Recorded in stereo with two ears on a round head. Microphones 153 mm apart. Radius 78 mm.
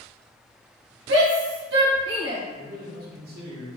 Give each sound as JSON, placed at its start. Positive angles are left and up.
{"t": 1.1, "sound": "a shout", "side_deg": -70, "distance_m": 1.9}
{"t": 2.5, "sound": "a man speaking", "side_deg": -65, "distance_m": 1.6}